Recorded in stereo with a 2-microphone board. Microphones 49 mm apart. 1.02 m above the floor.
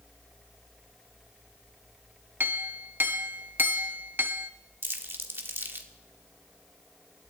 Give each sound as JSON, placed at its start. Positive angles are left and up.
{"t": 2.4, "sound": "a clink", "side_deg": -45, "distance_m": 0.8}
{"t": 4.8, "sound": "crumpling", "side_deg": -50, "distance_m": 1.4}